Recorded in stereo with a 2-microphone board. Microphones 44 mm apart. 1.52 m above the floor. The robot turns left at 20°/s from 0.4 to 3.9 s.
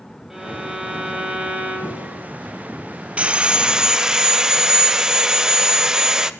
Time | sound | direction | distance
0.3 | a violin | 15° right | 2 m
3.2 | sawing | 25° right (ahead or behind) | 0.5 m